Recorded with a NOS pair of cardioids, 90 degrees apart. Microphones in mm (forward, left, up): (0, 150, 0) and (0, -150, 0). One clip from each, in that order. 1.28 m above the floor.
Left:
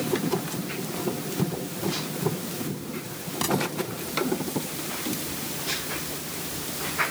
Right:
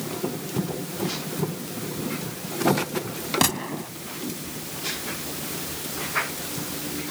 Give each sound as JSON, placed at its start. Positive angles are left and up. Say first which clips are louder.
{"t": 3.4, "sound": "a gunshot", "louder": "left 1 dB", "azimuth_deg": -55}